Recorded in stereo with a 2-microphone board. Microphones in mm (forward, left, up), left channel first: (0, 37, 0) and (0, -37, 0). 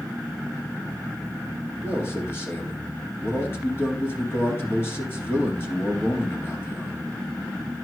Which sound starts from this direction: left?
A man speaking, at 1.8 s.